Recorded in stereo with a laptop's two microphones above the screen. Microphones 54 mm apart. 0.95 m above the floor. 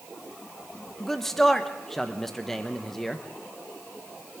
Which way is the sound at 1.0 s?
5° left (ahead or behind).